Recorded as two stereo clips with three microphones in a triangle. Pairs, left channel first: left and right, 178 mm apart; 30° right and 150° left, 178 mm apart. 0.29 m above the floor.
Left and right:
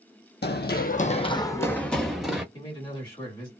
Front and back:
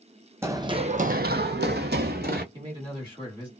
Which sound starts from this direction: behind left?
A man speaking, at 2.5 s.